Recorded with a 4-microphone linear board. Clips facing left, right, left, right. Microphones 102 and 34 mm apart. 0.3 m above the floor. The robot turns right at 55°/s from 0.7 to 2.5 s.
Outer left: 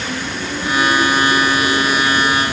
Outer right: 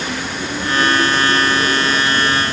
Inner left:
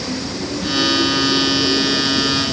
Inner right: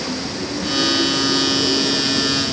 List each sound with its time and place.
Only background noise.